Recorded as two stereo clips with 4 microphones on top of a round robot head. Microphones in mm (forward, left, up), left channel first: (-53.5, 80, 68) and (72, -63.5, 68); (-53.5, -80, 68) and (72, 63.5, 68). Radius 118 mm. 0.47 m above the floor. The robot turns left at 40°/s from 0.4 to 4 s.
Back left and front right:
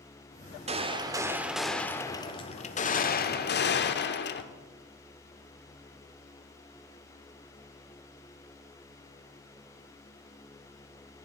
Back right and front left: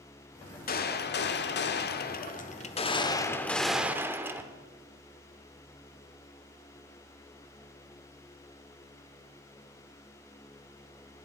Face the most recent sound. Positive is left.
turn(degrees=125)